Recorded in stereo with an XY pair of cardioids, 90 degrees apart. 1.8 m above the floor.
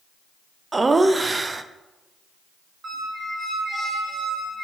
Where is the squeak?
45° right, 2.5 m.